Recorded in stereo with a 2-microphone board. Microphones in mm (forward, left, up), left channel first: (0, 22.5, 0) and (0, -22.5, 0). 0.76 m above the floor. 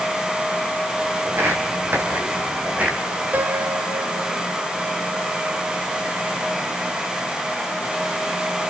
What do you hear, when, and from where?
1.2 s footsteps: 65° right (ahead or behind), 3 m; by 3.0 s 30° right (ahead or behind), 3.5 m
3.3 s a piano: 50° right (ahead or behind), 1.2 m